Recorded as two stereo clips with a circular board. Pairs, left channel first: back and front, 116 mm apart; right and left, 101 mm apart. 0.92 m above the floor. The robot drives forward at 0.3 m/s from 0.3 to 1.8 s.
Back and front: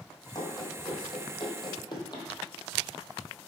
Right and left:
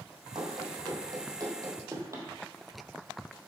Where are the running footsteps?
130° left, 2.0 m; by 2.3 s 140° left, 1.4 m.